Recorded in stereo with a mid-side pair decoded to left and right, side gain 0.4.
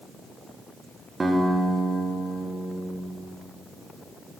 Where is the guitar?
30° right, 1.7 m.